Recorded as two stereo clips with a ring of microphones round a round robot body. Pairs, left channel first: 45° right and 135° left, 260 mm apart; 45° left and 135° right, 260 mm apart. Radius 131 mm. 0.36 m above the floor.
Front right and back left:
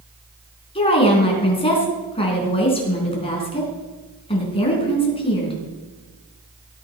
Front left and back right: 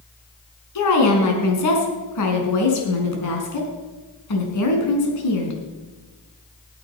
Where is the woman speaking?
25° left, 4 m.